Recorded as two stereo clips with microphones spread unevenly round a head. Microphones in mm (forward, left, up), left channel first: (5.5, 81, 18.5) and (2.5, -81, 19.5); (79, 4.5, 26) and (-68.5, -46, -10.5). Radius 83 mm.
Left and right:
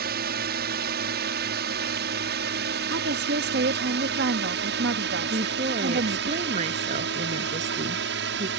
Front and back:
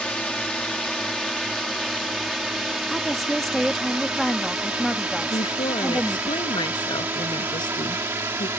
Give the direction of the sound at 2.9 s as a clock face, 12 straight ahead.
2 o'clock.